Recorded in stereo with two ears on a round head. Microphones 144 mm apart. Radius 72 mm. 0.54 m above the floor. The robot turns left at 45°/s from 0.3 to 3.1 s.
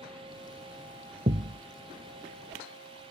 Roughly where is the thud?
Right.